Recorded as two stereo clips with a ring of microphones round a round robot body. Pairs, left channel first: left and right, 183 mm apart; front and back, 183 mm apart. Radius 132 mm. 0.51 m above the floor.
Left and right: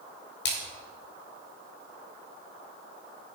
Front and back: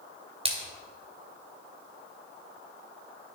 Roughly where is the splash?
Behind left.